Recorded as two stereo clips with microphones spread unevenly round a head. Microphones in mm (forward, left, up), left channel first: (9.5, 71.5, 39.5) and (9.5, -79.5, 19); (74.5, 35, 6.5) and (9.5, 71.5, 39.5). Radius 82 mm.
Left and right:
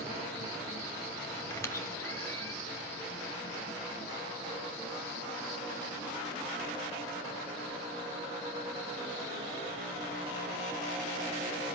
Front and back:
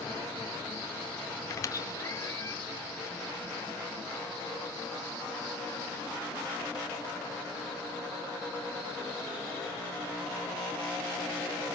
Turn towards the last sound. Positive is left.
turn(degrees=15)